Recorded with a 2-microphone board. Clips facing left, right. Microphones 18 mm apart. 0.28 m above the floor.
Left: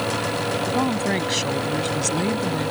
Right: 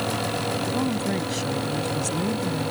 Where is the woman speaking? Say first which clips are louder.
Left 3 dB; 40° left (ahead or behind).